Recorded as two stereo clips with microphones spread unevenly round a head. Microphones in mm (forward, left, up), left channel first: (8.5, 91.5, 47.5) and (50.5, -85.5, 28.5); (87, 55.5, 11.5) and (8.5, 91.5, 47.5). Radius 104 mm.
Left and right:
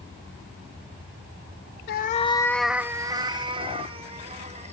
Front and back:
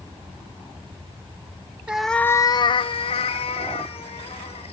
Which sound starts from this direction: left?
A cat meowing, at 1.9 s.